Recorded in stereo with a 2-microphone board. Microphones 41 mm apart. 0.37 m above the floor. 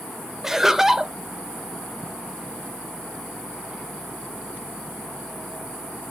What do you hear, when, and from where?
0.4 s laughter: 10° right (ahead or behind), 0.9 m